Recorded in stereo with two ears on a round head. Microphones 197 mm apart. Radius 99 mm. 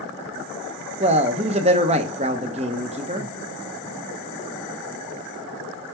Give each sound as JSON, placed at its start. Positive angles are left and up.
{"t": 1.0, "sound": "a man speaking", "side_deg": -30, "distance_m": 0.6}